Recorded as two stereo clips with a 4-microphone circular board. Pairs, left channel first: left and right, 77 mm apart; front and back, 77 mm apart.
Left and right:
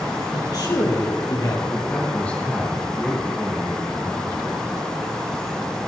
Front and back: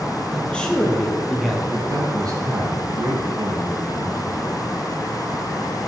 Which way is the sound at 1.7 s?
160° left.